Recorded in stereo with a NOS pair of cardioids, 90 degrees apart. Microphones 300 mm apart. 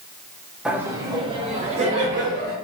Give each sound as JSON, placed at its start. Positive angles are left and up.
{"t": 0.7, "sound": "laughter", "azimuth_deg": -5, "distance_m": 0.8}